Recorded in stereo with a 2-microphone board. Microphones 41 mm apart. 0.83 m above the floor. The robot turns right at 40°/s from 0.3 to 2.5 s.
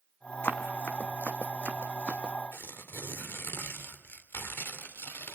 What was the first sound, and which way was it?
Running footsteps, 55° left (ahead or behind).